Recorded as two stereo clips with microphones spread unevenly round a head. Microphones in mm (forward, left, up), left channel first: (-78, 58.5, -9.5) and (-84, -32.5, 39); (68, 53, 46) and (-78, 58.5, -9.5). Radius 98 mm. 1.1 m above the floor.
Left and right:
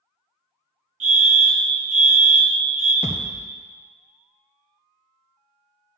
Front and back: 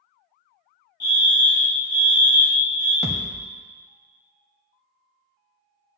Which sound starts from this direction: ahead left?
A thud, at 3.0 s.